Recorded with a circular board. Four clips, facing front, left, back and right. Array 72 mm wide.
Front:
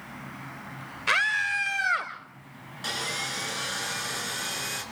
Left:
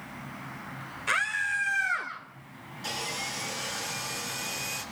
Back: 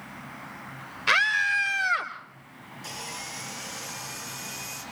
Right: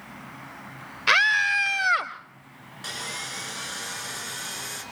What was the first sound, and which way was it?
A scream, 100° right.